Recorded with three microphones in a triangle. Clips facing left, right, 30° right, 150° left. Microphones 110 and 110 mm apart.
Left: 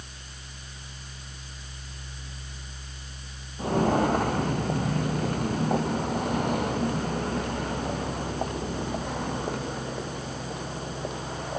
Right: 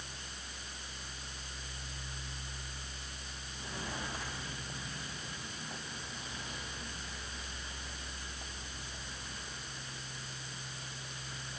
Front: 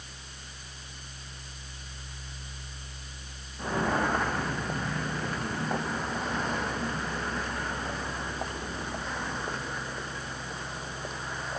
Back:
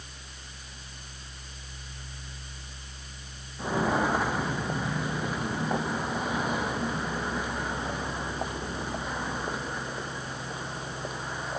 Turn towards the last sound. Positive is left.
turn(degrees=70)